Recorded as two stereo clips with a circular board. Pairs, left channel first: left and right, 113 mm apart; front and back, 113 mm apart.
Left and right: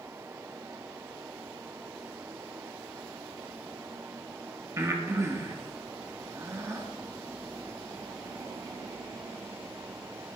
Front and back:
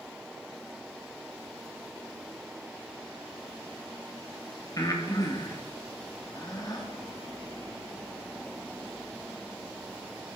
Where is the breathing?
40° right, 1.3 m.